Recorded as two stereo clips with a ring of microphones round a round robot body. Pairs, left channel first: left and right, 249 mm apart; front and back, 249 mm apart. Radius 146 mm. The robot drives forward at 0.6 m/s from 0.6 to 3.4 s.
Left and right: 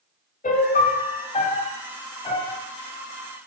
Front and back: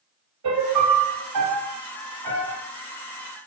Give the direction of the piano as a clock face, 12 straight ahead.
7 o'clock.